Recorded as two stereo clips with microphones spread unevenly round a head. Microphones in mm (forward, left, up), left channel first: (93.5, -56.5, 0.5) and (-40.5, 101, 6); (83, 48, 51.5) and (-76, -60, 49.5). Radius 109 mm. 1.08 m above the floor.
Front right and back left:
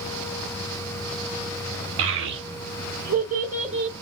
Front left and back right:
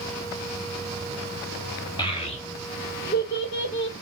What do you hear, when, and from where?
2.0 s a child speaking: 105° left, 1.2 m; by 3.9 s 70° left, 1.8 m